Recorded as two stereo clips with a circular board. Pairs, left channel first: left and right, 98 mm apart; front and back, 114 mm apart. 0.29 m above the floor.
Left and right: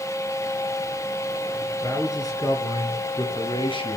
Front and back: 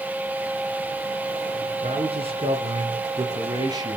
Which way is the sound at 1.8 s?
150° left.